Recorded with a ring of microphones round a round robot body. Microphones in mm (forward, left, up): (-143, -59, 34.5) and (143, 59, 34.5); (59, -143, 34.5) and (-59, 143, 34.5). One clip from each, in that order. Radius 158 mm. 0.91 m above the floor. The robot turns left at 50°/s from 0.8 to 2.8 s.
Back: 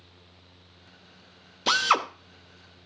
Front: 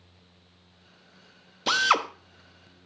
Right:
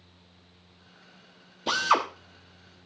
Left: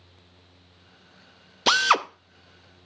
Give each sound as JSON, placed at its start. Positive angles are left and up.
{"t": 1.7, "sound": "a drill", "azimuth_deg": 125, "distance_m": 0.8}